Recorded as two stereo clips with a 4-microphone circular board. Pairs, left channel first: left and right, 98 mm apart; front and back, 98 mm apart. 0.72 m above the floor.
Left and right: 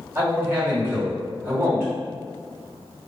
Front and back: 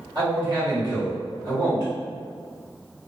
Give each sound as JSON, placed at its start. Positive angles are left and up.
{"t": 0.1, "sound": "a man speaking", "azimuth_deg": -150, "distance_m": 1.6}